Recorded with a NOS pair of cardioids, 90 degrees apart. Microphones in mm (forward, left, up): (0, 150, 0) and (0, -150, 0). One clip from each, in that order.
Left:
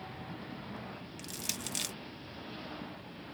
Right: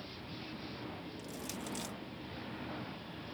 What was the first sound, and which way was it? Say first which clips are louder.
Crushing: left 8 dB; 65° left.